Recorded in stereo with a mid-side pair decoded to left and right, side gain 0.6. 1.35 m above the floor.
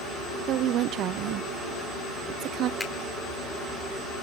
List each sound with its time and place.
0.5 s a woman speaking: 60° right, 0.5 m
2.8 s a finger snap: 20° left, 4 m